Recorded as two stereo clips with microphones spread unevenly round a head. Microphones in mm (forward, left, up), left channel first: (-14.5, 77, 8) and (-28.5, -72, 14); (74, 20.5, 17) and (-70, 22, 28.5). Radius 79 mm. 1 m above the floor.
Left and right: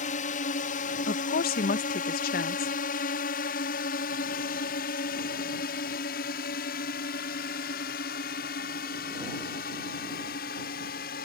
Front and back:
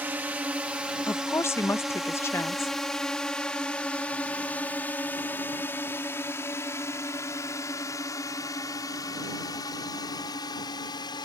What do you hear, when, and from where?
0.0 s a drone: 100° left; by 11.3 s 60° left
1.1 s a woman speaking: 70° left